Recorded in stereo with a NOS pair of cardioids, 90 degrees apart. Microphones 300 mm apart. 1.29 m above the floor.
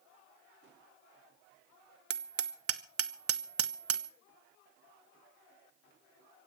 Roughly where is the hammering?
Ahead right.